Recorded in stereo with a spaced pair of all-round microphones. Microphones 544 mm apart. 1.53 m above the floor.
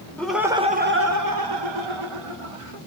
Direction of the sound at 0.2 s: 5° left (ahead or behind).